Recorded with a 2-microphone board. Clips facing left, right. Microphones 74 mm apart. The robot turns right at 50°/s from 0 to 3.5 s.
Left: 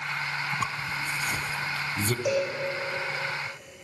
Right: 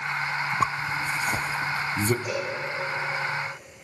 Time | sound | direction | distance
0.6 | a zipper | 35° right (ahead or behind) | 0.9 m
2.2 | a cowbell | 80° left | 6 m